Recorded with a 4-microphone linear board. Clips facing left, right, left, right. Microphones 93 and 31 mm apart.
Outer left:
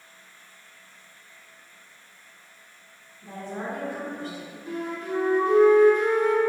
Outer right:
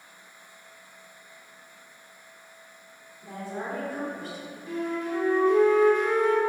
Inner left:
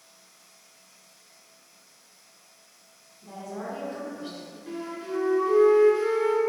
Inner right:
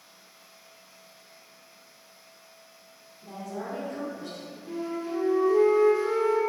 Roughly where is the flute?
Left.